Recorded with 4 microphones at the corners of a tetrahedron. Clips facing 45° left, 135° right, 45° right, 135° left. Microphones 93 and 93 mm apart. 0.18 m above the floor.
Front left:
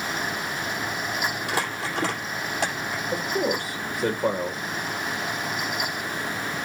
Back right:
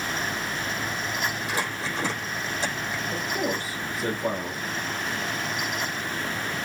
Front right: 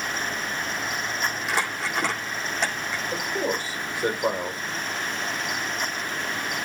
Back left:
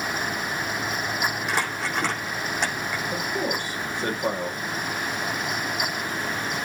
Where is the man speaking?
35° left, 5 m.